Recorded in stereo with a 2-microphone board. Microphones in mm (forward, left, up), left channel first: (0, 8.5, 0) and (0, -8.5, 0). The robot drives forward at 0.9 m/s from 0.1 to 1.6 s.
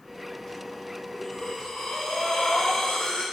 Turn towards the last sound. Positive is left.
turn(degrees=70)  # may be behind; listen again after turning